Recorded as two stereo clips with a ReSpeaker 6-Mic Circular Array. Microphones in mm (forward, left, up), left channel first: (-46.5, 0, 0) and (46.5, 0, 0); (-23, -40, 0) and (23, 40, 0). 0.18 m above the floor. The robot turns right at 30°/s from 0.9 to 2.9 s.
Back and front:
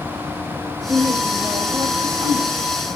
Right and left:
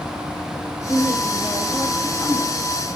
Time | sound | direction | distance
0.9 | a woman speaking | 65° right | 8 m